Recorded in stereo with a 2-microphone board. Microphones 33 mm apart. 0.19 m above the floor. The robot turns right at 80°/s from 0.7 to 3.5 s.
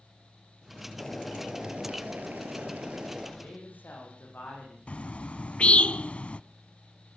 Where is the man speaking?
75° left (ahead or behind), 9 m; by 4.8 s 80° left, 9 m.